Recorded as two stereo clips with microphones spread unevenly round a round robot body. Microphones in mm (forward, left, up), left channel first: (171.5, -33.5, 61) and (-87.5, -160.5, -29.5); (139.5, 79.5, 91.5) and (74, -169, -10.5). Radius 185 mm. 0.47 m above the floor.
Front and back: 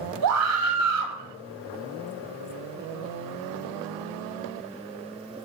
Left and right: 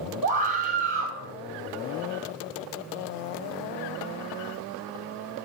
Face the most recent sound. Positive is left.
turn(degrees=-155)